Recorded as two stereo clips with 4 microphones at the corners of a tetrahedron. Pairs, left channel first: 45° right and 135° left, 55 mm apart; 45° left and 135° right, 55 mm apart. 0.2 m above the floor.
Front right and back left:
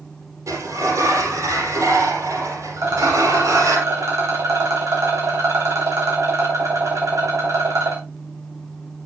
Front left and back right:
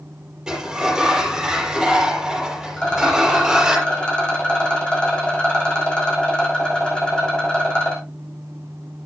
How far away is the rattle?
About 6.5 m.